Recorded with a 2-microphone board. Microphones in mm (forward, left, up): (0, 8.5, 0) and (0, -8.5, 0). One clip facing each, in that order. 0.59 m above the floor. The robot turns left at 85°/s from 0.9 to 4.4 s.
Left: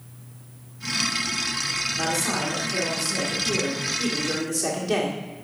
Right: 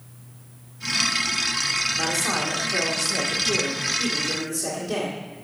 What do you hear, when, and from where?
2.0 s a man speaking: straight ahead, 1.7 m; by 5.2 s 155° left, 1.7 m